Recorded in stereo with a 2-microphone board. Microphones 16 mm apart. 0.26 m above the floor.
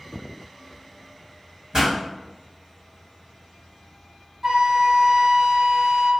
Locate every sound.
1.7 s a pop: 40° right (ahead or behind), 1.9 m
4.4 s a flute: 40° right (ahead or behind), 1.0 m